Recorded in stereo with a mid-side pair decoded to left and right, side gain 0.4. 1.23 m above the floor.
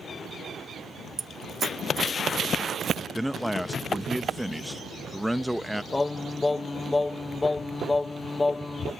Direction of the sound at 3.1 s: Straight ahead.